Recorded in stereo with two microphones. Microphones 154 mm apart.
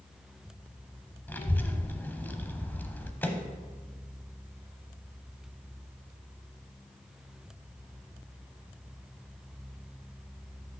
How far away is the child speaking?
About 0.8 m.